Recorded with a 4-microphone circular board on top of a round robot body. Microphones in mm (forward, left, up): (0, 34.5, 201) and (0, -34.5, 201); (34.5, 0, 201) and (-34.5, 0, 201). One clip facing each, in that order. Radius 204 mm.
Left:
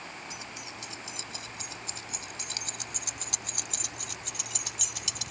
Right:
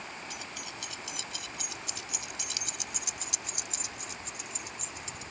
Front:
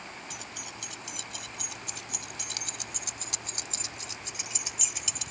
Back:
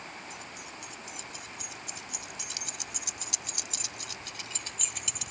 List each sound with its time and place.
0.3 s keys jangling: 25° left; by 5.3 s 95° left